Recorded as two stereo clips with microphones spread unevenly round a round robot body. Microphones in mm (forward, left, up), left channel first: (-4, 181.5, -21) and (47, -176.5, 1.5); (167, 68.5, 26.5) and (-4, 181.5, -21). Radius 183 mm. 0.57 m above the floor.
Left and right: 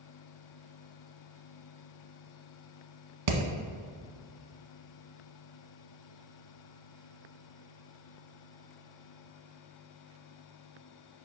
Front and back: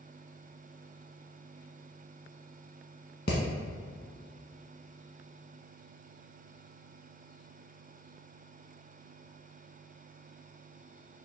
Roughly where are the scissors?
I don't hear scissors.